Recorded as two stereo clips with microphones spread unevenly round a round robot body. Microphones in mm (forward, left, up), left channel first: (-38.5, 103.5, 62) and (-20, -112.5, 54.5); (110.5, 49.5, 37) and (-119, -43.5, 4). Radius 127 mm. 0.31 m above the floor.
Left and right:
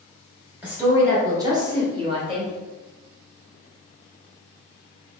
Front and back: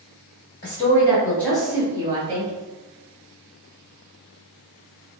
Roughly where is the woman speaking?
Ahead.